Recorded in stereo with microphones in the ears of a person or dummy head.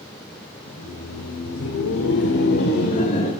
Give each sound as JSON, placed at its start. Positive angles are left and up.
{"t": 0.7, "sound": "laughter", "side_deg": 65, "distance_m": 1.4}